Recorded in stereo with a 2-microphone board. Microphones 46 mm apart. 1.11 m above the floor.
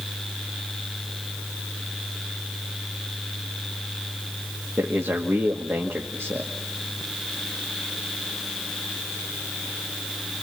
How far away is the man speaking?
About 2 m.